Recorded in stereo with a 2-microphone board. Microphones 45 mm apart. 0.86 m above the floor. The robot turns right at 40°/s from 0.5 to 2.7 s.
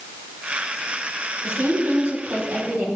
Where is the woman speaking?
110° right, 5 m; by 2.9 s 60° right, 5 m.